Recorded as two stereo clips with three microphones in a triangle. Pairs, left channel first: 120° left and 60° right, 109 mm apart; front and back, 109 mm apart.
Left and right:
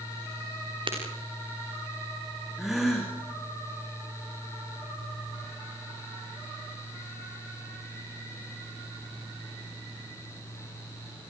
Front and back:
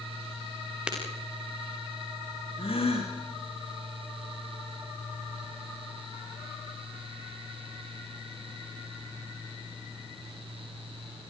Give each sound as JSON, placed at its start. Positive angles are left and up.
{"t": 0.9, "sound": "breaking glass", "azimuth_deg": -100, "distance_m": 7.0}
{"t": 2.6, "sound": "a gasp", "azimuth_deg": 30, "distance_m": 5.0}